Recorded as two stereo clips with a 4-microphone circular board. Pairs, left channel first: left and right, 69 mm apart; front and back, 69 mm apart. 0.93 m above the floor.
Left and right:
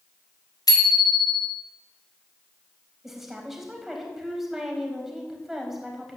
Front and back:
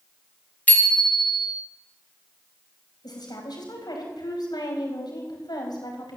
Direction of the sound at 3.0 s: 5° right.